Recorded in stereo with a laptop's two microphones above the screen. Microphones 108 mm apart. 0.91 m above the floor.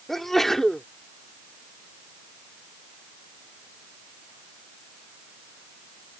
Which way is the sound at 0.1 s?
Centre (ahead or behind).